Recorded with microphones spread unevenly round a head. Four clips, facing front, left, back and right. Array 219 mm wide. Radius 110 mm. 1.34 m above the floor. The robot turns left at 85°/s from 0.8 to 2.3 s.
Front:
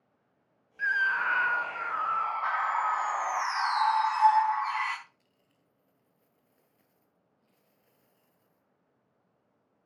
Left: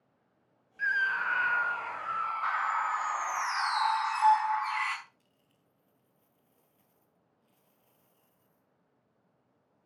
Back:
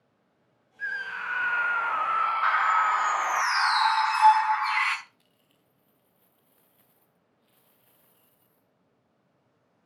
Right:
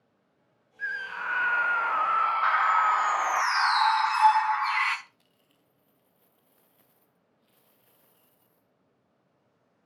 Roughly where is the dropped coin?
Behind right.